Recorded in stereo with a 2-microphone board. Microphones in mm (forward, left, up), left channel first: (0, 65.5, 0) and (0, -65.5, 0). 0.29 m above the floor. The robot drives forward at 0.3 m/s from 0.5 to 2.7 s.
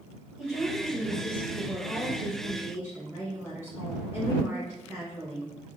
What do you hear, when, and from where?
0.4 s a woman speaking: 15° right (ahead or behind), 1.3 m